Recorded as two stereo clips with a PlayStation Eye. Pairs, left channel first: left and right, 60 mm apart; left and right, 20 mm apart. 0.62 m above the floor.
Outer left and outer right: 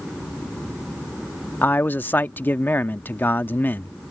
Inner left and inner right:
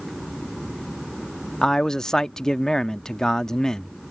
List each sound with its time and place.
1.6 s a man speaking: 35° left (ahead or behind)